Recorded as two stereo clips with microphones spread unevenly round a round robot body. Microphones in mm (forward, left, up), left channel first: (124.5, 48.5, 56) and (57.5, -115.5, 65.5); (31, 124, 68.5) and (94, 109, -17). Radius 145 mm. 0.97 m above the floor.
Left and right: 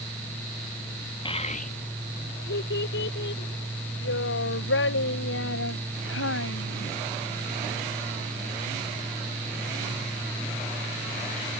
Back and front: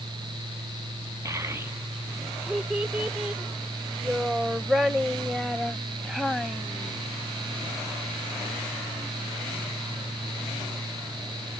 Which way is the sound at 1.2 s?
5° left.